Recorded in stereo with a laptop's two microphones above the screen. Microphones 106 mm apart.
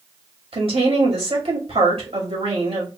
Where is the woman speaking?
75° right (ahead or behind), 2.0 m.